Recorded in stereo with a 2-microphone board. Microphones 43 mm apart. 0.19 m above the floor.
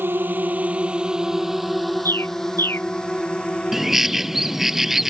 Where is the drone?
55° right (ahead or behind); by 5.1 s 30° left (ahead or behind).